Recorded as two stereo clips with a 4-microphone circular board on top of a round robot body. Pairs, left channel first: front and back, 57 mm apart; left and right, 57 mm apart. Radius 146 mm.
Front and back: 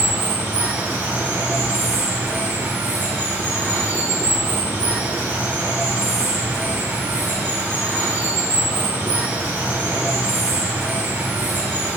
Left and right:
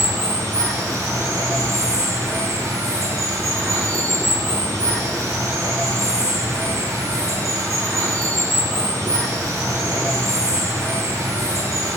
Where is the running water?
130° right, 5 m.